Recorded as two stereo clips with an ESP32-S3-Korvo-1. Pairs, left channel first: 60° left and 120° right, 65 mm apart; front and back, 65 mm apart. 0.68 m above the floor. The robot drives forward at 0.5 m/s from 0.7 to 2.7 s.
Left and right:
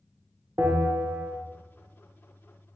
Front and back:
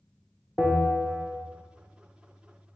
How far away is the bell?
About 0.6 m.